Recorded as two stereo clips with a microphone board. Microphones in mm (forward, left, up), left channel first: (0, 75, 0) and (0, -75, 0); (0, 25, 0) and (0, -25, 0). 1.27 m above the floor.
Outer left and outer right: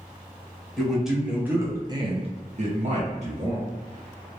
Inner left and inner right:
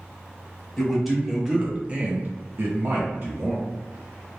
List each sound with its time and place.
0.8 s a man speaking: centre (ahead or behind), 1.0 m; by 3.6 s 45° right (ahead or behind), 1.0 m